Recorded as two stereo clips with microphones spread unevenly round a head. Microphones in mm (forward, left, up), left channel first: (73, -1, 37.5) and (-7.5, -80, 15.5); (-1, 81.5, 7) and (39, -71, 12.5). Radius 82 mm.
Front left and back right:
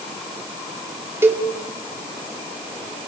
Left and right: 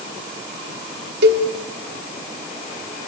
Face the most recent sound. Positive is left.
turn(degrees=-65)